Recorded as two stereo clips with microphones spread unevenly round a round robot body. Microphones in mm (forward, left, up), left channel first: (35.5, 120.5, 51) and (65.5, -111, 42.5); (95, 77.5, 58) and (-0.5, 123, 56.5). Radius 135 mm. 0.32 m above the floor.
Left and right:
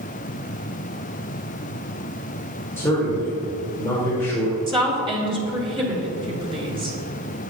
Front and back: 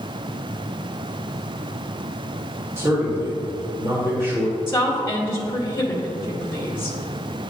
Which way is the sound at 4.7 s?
55° right.